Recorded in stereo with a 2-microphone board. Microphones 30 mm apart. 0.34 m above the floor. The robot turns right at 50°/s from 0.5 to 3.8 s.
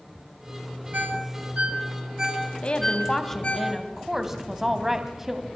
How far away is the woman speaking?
About 1.8 m.